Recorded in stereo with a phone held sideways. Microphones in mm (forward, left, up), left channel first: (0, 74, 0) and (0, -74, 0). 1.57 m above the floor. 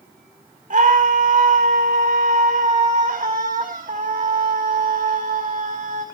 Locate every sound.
0.7 s a scream: 55° right (ahead or behind), 4.5 m